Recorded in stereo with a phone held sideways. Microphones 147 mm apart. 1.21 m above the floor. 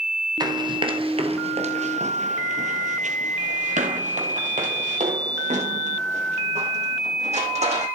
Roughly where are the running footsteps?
Right.